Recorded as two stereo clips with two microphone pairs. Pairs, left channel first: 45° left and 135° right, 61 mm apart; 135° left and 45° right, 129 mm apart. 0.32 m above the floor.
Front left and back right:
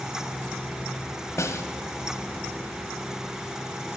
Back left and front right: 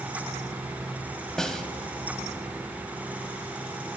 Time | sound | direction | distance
1.4 | a snare drum | 50° left | 1.1 m